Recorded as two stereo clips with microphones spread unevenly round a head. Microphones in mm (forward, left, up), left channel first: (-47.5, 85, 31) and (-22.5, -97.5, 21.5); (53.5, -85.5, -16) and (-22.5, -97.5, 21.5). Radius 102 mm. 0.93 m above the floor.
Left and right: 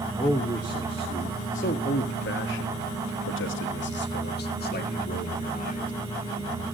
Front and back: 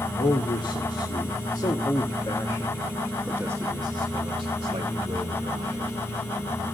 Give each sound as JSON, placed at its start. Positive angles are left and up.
{"t": 0.2, "sound": "a man speaking", "azimuth_deg": 25, "distance_m": 1.9}